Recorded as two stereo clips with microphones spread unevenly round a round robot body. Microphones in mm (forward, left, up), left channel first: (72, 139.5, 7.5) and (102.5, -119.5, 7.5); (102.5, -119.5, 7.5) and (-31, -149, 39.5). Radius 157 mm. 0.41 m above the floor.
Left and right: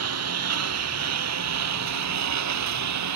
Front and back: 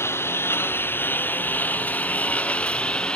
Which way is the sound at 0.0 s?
60° right.